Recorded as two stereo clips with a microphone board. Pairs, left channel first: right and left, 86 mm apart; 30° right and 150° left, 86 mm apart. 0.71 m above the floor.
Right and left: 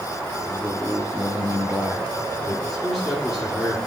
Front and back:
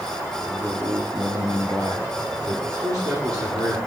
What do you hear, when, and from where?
0.4 s a man speaking: 165° right, 0.9 m; by 2.6 s 135° left, 2 m
2.7 s a man speaking: straight behind, 2.0 m